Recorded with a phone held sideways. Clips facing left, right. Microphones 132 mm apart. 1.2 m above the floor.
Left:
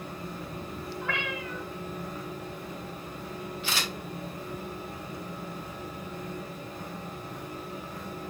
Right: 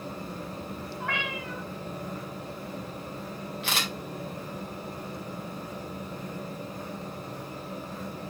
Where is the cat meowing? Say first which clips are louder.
Even; 70° right (ahead or behind), 4 m.